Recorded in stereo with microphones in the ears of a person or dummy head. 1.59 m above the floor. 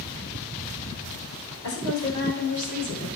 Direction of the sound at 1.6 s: 75° left (ahead or behind).